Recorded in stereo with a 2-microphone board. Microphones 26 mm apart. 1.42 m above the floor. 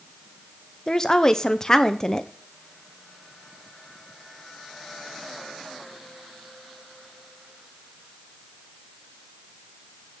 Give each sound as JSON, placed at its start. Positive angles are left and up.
{"t": 0.9, "sound": "a woman speaking", "side_deg": 25, "distance_m": 0.7}